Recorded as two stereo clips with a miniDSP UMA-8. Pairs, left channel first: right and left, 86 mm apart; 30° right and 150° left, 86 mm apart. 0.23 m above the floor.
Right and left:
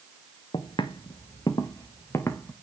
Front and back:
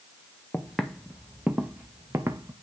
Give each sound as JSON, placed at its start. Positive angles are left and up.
{"t": 0.5, "sound": "footsteps", "azimuth_deg": -110, "distance_m": 1.3}